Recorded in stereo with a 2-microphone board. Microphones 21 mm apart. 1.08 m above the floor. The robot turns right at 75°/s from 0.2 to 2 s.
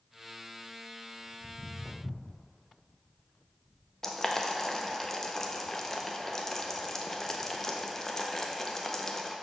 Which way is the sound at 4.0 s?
25° left (ahead or behind).